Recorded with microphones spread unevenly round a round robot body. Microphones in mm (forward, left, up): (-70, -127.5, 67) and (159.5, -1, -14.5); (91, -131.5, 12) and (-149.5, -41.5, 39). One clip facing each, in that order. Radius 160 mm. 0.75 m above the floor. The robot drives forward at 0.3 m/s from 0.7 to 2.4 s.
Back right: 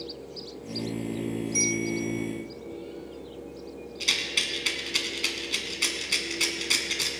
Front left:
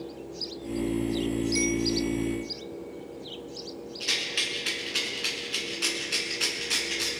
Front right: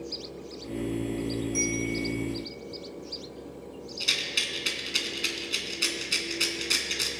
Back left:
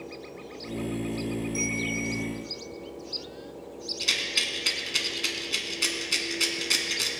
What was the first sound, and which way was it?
A bell, 75° right.